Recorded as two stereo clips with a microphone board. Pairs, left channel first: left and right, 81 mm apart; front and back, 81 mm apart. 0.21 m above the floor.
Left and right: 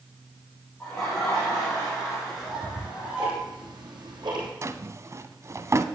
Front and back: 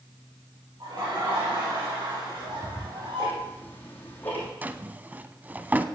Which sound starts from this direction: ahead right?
Ticking, at 2.3 s.